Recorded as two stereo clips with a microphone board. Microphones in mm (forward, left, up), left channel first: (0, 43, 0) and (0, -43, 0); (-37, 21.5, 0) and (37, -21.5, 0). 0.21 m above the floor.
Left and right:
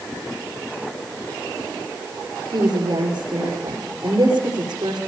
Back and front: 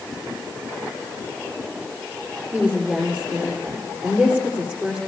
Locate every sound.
2.5 s a woman speaking: 105° right, 5 m